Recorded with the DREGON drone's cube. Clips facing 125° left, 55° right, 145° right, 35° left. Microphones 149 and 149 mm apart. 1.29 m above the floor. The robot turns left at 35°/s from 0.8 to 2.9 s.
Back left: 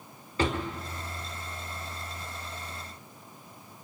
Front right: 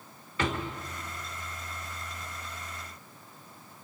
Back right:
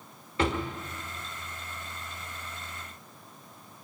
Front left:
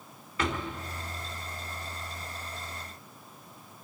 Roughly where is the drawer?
Behind.